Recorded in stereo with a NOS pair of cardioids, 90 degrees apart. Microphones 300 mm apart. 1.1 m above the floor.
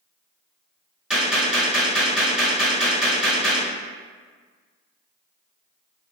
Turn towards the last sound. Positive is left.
turn(degrees=-5)